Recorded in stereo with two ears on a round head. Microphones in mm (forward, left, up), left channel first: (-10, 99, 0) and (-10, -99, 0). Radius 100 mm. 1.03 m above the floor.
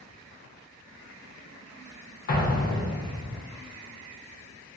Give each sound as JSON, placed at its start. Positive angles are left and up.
{"t": 2.3, "sound": "an explosion", "side_deg": 40, "distance_m": 0.5}